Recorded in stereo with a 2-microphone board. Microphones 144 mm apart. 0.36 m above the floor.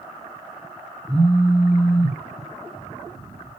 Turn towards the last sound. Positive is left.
turn(degrees=-25)  # may be behind; listen again after turning